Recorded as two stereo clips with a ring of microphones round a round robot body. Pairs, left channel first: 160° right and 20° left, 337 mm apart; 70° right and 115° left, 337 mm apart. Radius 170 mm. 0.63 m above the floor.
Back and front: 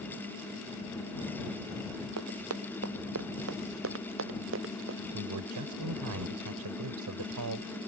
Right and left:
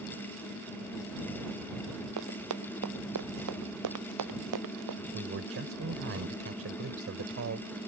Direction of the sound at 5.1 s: 60° left.